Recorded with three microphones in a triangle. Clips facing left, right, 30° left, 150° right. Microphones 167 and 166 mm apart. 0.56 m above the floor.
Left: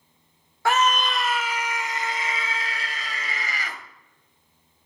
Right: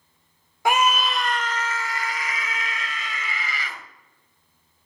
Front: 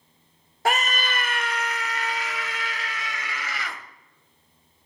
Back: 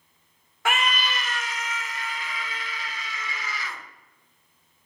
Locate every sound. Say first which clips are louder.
0.7 s a scream: right 1 dB, front 1 dB; 20° right, 1.2 m; by 3.8 s 45° left, 2.5 m